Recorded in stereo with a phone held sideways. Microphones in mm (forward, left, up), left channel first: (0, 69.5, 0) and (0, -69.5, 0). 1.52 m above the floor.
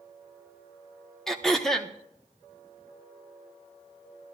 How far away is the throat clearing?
About 1.0 m.